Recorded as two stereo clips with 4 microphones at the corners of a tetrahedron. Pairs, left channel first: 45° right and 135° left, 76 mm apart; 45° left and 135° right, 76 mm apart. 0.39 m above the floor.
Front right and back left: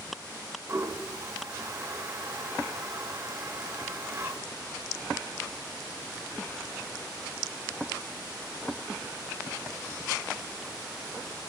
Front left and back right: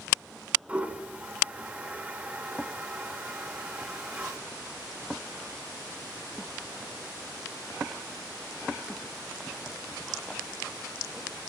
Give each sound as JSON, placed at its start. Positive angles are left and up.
{"t": 0.7, "sound": "a toilet flushing", "azimuth_deg": 165, "distance_m": 0.8}